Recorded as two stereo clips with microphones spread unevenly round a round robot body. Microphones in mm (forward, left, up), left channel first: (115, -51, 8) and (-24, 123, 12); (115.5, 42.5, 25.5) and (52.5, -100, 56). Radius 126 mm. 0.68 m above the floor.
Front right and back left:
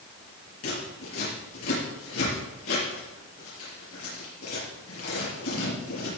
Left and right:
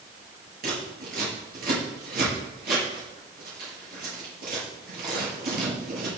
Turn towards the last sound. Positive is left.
turn(degrees=-95)